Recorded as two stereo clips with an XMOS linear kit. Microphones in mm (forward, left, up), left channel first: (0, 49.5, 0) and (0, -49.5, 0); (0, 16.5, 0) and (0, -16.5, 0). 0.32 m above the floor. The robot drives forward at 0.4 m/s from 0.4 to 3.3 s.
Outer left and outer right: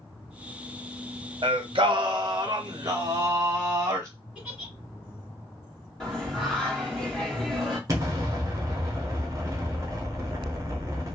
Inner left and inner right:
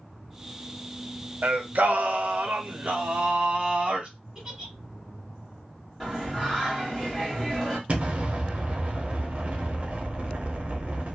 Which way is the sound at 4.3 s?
10° right (ahead or behind).